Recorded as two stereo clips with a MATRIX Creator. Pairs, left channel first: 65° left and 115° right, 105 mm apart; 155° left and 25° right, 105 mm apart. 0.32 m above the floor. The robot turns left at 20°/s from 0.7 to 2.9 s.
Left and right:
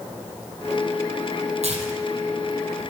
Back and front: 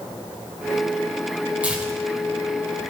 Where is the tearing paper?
100° right, 1.7 m; by 2.9 s 125° right, 1.7 m.